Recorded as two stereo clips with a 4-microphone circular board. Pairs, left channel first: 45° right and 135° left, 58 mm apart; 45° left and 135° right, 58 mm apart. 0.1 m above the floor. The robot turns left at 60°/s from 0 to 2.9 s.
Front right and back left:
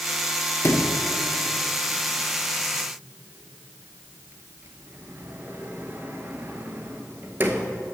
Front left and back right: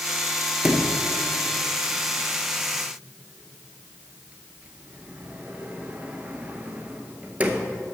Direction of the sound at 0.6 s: 55° right.